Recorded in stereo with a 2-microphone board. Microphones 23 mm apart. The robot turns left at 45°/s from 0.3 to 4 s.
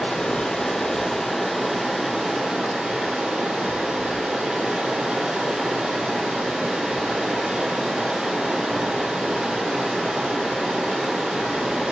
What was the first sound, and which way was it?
Running water, 50° left.